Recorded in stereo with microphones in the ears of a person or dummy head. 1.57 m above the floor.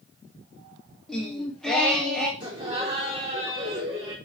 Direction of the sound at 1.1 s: Centre (ahead or behind).